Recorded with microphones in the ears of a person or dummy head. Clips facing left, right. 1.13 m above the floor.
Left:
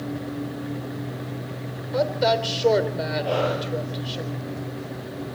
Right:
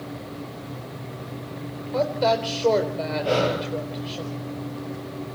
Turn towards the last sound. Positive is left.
turn(degrees=-20)  # may be behind; listen again after turning